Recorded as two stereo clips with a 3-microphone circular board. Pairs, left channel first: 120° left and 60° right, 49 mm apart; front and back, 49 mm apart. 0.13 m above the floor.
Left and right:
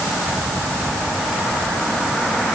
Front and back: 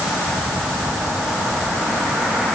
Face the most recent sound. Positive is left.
No sound to turn to.